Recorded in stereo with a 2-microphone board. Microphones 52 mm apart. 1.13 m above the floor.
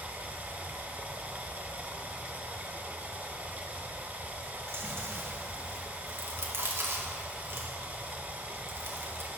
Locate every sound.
0.0 s running water: 30° right (ahead or behind), 0.9 m
4.7 s chewing: 50° right (ahead or behind), 1.7 m